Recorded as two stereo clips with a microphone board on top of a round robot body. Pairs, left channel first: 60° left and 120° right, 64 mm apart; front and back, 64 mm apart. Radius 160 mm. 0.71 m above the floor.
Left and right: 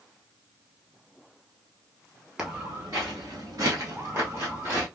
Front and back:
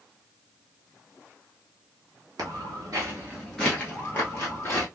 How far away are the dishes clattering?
I don't hear dishes clattering.